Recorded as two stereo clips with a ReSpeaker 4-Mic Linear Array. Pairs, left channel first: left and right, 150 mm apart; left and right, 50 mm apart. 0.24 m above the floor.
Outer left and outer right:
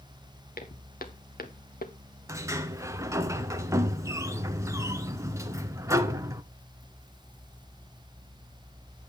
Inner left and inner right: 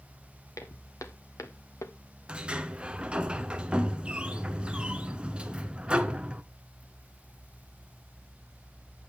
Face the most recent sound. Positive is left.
turn(degrees=-20)  # may be behind; listen again after turning